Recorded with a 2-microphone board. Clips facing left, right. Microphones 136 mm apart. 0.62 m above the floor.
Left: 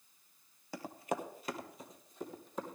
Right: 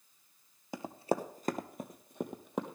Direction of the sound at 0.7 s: 20° right (ahead or behind).